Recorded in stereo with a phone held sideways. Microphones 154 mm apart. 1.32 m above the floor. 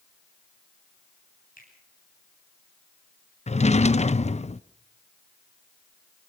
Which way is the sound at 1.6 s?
70° left (ahead or behind).